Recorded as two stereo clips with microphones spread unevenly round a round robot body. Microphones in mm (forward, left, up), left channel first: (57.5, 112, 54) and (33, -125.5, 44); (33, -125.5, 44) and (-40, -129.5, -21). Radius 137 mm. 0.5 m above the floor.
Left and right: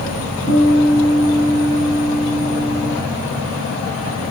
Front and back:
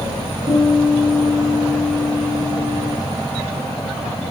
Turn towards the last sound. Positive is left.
turn(degrees=-175)